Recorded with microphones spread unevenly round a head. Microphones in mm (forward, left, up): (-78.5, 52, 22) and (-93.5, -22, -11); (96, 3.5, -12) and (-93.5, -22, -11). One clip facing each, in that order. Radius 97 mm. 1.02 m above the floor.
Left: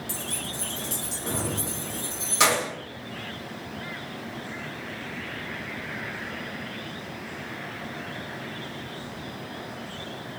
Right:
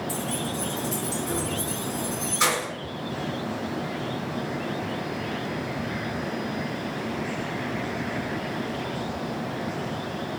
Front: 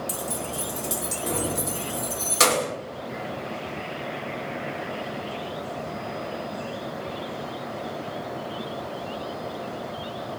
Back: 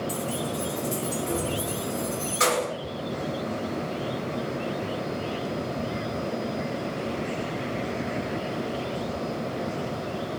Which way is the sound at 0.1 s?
45° left.